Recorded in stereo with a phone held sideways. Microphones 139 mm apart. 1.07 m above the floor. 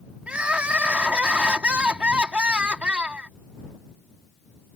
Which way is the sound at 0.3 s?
10° right (ahead or behind).